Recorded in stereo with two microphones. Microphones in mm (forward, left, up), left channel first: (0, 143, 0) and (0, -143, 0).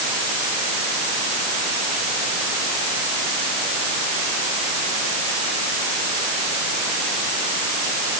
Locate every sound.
Only background noise.